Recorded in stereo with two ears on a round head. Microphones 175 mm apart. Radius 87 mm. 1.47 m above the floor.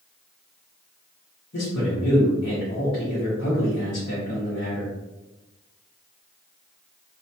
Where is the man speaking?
60° left (ahead or behind), 1.3 m.